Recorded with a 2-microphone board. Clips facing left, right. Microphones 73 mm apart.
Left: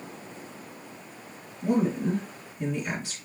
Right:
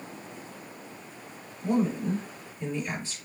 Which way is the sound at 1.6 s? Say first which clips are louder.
Left 1 dB; 65° left (ahead or behind).